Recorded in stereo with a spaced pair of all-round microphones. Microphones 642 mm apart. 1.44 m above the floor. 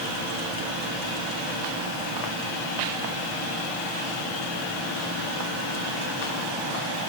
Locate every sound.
Only background noise.